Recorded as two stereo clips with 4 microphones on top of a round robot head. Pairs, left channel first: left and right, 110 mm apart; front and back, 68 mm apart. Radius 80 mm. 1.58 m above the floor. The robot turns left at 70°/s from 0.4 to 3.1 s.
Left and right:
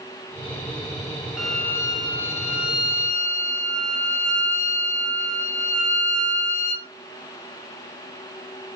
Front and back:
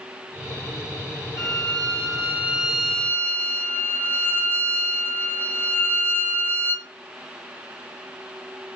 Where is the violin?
175° right, 2.5 m; by 6.9 s 65° left, 2.5 m.